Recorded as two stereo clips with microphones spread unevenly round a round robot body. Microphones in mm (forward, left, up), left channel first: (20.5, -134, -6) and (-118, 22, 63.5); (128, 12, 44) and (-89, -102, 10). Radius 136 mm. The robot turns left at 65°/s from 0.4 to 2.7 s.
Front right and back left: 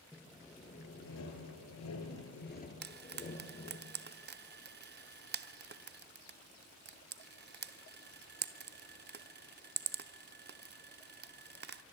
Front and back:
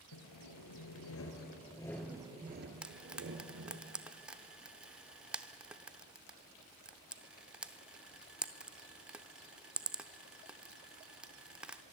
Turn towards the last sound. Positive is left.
turn(degrees=145)